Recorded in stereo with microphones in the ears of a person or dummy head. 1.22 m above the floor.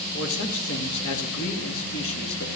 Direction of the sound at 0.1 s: 80° left.